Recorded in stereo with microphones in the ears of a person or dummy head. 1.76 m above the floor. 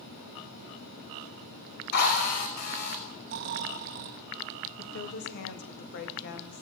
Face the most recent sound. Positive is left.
turn(degrees=65)  # may be behind; listen again after turning